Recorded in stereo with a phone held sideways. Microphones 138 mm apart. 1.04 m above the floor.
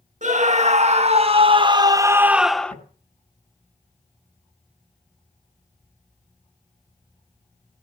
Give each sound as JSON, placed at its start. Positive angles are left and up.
{"t": 0.2, "sound": "a scream", "side_deg": -55, "distance_m": 1.9}
{"t": 2.7, "sound": "tapping", "side_deg": 55, "distance_m": 9.5}